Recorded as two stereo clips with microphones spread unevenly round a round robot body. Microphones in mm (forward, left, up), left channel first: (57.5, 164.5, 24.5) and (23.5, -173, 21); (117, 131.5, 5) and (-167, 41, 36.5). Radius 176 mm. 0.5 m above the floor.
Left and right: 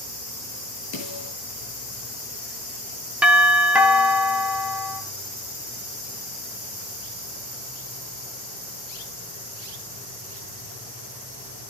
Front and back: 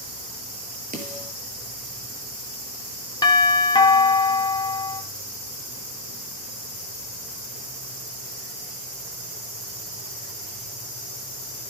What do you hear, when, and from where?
0.9 s a snare drum: 135° left, 6.5 m
3.2 s a doorbell: 15° right, 1.6 m